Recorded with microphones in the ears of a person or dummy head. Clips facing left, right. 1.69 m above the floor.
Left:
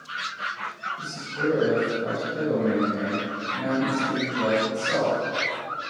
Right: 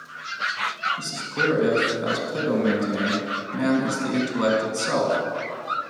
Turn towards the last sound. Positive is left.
turn(degrees=-65)  # may be behind; listen again after turning